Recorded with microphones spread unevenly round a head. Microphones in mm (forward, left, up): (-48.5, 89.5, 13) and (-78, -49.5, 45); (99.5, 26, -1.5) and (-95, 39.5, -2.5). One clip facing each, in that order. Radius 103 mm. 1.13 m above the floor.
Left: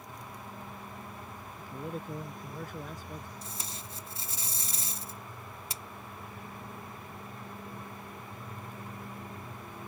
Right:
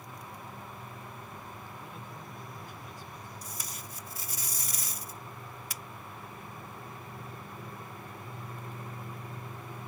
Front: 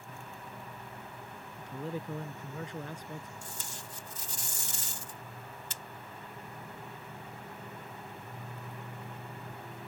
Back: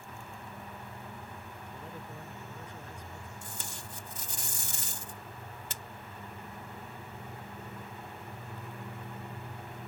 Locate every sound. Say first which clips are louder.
1.6 s a man speaking: left 6 dB, front 10 dB; 20° left
3.4 s tape being pulled: left 1 dB, back 1 dB; 140° left